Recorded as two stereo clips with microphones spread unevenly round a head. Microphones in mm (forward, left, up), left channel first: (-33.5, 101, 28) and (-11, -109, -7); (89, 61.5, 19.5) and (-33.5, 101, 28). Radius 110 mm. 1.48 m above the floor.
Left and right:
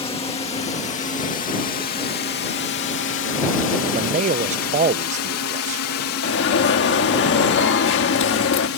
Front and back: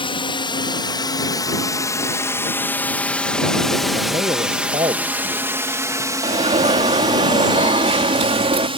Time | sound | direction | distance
0.0 | a drone | 25° left | ?
3.9 | a man speaking | 145° right | ?
6.2 | an alarm | 125° left | ?